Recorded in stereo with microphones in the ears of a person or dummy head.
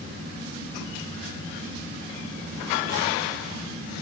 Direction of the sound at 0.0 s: 60° right (ahead or behind).